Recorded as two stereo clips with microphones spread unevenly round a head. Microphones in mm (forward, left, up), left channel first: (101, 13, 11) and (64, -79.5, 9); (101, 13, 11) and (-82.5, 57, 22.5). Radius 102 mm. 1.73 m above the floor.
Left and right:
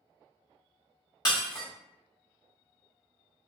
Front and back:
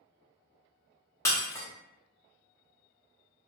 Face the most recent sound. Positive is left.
turn(degrees=60)